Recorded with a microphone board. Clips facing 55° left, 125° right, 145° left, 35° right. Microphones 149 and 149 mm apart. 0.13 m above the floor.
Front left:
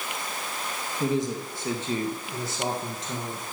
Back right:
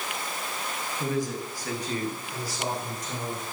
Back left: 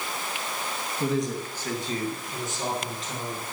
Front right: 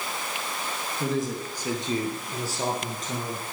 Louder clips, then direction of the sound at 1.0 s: Front left 3 dB, back left 1 dB; 70° left.